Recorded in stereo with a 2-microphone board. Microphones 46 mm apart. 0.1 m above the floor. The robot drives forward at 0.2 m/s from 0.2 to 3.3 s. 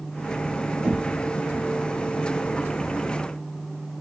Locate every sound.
0.8 s knocking: 35° right (ahead or behind), 1.5 m